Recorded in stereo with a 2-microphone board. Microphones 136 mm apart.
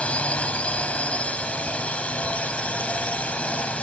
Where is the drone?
10° left (ahead or behind).